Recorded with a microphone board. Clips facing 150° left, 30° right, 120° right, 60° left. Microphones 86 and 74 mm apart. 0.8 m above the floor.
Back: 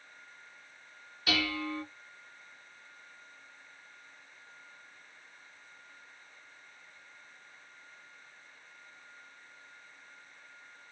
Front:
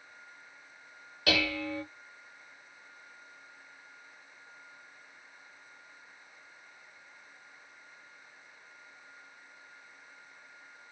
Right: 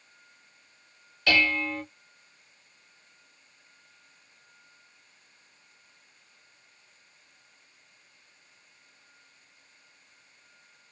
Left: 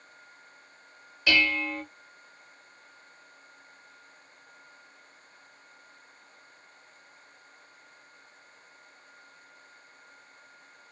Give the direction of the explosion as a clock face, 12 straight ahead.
No explosion in this recording.